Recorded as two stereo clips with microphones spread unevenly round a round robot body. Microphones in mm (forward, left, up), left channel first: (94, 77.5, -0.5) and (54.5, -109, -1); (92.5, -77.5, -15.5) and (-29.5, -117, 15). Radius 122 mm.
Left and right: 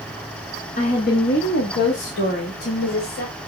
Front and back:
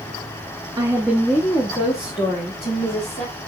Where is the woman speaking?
125° left, 1.0 m; by 3.3 s 50° left, 3 m.